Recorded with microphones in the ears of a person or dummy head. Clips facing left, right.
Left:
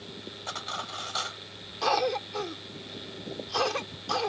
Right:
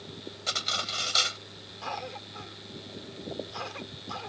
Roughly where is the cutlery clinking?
Right.